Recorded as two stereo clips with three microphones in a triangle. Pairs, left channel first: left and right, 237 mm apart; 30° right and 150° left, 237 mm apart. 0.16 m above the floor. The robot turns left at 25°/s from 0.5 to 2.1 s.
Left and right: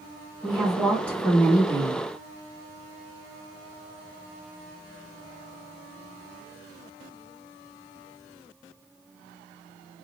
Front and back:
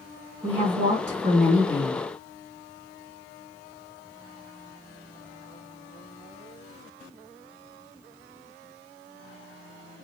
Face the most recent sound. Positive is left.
turn(degrees=145)